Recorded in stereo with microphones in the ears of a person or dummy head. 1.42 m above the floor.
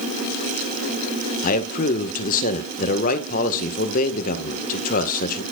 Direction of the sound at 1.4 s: 50° left (ahead or behind).